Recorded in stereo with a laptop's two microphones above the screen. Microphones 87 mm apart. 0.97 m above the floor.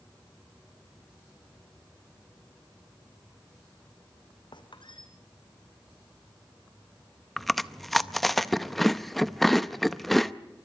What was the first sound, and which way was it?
A squeak, 65° left (ahead or behind).